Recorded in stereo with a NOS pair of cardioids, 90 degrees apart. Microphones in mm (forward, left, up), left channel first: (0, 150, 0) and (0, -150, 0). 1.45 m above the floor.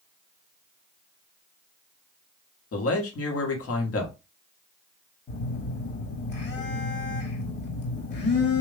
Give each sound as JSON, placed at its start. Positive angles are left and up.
{"t": 2.7, "sound": "a man speaking", "azimuth_deg": 55, "distance_m": 1.6}
{"t": 5.3, "sound": "a phone buzzing", "azimuth_deg": 40, "distance_m": 2.0}